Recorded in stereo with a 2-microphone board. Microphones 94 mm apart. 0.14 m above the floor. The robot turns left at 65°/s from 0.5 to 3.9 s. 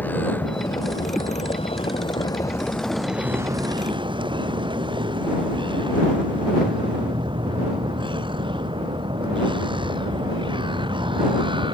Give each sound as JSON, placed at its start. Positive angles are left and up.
{"t": 0.0, "sound": "a vehicle", "azimuth_deg": 160}